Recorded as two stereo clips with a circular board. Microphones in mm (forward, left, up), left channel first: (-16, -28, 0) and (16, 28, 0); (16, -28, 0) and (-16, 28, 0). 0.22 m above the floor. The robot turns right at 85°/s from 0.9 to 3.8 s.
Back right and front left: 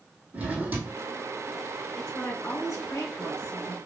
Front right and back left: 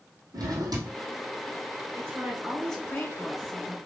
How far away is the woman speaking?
About 2 m.